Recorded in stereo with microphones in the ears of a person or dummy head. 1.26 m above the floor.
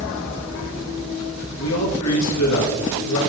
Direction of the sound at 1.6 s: 75° left (ahead or behind).